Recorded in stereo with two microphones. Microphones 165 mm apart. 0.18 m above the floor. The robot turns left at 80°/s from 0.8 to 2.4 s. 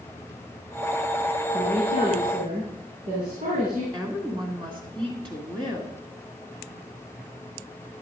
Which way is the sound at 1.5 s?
50° right.